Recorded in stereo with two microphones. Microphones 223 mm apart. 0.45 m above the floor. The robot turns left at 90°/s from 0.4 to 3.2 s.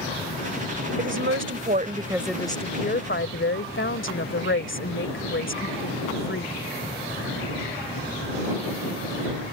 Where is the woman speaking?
65° right; by 6.6 s 95° left.